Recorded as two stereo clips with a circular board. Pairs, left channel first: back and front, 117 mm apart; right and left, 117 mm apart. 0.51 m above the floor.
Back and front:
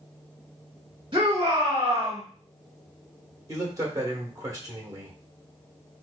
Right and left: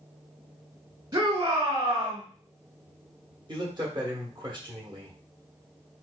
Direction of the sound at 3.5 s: 55° left.